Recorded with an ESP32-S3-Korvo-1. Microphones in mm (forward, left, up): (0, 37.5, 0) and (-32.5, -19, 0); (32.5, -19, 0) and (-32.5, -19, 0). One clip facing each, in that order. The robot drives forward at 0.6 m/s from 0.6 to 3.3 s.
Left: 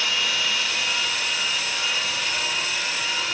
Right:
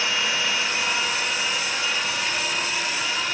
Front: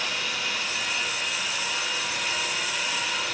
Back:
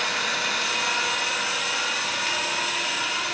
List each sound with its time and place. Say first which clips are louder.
0.0 s an engine running: right 1 dB, back 4 dB; straight behind, 1.3 m